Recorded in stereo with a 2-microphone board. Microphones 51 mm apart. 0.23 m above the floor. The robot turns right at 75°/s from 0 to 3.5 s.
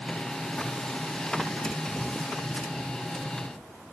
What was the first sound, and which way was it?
Only background noise.